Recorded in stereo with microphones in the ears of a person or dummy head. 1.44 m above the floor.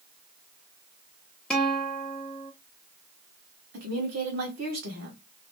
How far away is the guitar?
About 0.8 m.